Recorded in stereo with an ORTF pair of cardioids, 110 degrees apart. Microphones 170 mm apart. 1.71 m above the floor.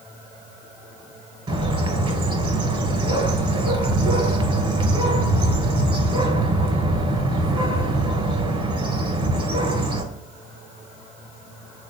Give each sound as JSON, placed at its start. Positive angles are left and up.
{"t": 1.5, "sound": "a bird", "azimuth_deg": -30, "distance_m": 1.5}